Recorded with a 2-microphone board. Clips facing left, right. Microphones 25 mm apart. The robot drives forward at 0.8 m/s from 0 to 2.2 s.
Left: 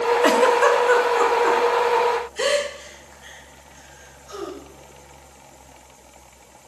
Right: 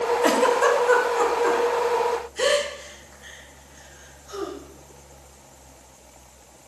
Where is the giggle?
25° left (ahead or behind), 0.8 m; by 4.5 s 10° left (ahead or behind), 2.5 m.